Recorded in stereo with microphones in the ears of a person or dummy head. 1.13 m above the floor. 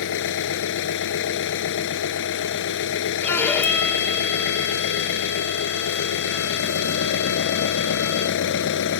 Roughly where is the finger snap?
No finger snap in this recording.